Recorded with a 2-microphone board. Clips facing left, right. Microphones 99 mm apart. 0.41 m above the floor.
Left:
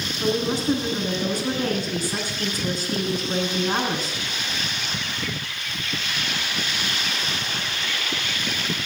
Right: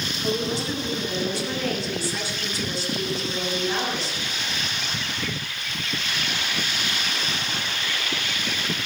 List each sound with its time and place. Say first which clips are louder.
0.2 s a woman speaking: left 4 dB; 45° left (ahead or behind), 5 m